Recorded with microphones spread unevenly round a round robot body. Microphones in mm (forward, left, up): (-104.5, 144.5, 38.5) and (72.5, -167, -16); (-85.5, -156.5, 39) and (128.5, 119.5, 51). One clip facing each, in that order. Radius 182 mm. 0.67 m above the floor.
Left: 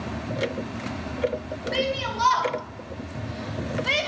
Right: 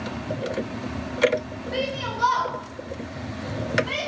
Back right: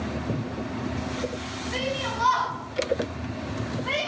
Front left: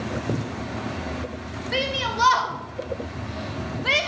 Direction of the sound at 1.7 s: 50° left.